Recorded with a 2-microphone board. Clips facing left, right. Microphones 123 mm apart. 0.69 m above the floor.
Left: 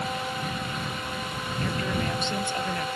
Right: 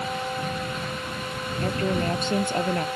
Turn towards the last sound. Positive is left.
turn(degrees=-40)  # may be behind; listen again after turning